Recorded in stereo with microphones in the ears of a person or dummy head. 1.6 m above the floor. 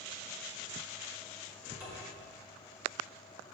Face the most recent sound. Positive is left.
turn(degrees=-10)  # may be behind; listen again after turning